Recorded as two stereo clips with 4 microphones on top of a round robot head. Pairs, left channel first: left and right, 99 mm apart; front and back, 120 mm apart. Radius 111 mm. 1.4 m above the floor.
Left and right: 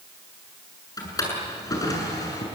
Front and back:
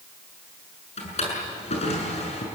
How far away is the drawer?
About 7.5 m.